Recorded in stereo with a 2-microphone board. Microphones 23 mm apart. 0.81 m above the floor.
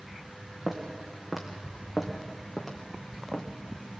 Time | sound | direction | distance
0.7 | footsteps | 15° right (ahead or behind) | 3 m